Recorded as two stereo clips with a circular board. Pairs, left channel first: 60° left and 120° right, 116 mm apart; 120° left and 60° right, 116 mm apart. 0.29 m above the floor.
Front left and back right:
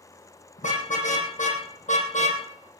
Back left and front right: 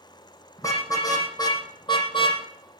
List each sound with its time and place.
0.6 s a car horn: 55° left, 5.5 m; by 2.4 s 75° left, 3.5 m